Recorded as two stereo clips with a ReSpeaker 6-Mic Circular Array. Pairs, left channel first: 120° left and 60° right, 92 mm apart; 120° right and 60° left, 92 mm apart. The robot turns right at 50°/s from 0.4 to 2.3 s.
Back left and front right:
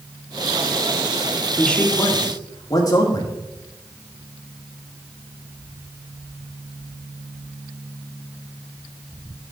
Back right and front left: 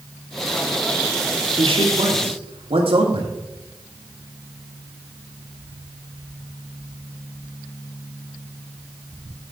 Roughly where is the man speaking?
Ahead left.